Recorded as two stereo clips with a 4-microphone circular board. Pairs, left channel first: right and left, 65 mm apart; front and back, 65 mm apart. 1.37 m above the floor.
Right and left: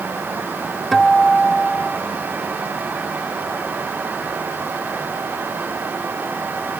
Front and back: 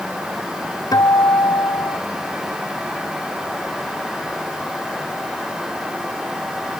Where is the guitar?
5° right.